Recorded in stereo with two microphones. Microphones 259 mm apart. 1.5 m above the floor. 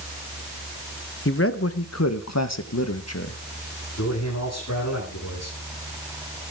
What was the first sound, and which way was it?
A man speaking, 50° left (ahead or behind).